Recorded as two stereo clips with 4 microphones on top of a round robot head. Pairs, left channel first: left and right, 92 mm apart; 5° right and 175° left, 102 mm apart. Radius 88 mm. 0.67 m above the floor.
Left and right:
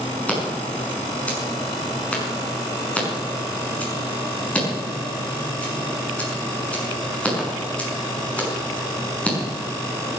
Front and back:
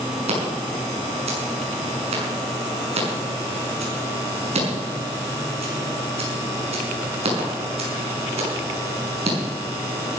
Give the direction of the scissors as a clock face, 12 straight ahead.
7 o'clock.